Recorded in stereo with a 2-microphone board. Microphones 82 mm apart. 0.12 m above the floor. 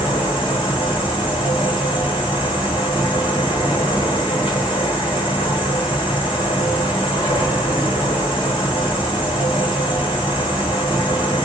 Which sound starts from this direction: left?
An insect, at 0.0 s.